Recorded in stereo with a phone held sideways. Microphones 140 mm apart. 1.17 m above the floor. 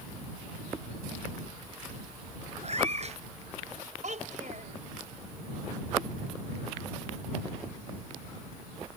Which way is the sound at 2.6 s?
50° right (ahead or behind).